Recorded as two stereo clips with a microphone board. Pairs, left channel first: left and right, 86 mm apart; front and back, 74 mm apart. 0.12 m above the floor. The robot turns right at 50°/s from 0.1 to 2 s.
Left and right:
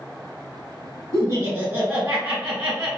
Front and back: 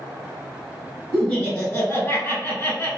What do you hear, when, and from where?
1.1 s laughter: 70° right, 1.6 m; by 2.9 s 25° right, 1.6 m